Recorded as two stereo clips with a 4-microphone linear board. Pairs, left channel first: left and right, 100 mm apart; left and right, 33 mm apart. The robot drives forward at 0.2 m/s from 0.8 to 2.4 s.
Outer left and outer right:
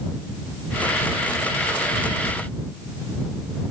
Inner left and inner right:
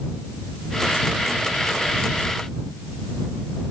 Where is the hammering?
I don't hear hammering.